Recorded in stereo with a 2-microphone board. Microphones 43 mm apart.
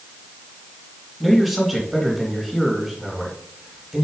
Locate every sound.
1.2 s a man speaking: centre (ahead or behind), 2 m